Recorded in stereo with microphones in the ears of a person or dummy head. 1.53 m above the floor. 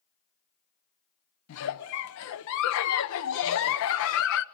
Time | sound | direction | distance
1.5 | a giggle | 75° left (ahead or behind) | 0.9 m